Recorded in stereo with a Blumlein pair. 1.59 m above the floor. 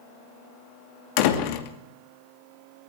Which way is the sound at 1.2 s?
45° left.